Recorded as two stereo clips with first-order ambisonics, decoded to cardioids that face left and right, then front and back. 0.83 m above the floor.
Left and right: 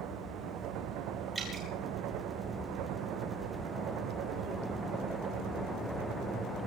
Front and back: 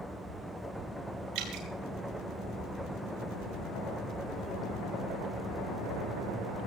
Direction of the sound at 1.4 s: 160° right.